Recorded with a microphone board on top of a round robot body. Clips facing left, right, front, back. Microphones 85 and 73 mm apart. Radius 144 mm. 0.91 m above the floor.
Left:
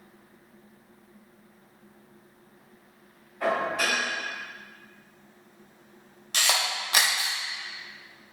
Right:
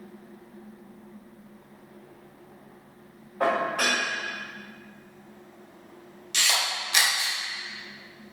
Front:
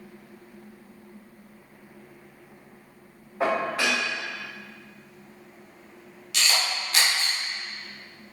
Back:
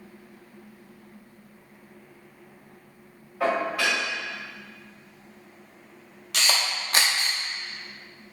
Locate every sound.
3.4 s dishes clattering: 60° right, 2.5 m
6.3 s a camera shutter: 135° left, 0.8 m